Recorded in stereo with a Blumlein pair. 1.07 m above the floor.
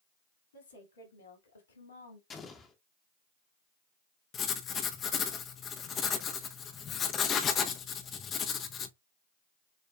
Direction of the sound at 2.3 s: 20° left.